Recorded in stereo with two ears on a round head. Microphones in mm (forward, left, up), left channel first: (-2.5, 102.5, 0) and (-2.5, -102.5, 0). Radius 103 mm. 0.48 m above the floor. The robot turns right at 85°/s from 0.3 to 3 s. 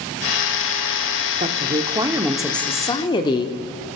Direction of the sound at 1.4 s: 30° right (ahead or behind).